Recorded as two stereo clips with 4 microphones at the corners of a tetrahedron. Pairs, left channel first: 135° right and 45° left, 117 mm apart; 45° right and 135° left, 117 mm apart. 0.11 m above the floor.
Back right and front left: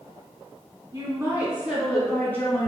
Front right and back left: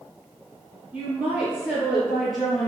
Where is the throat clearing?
I don't hear throat clearing.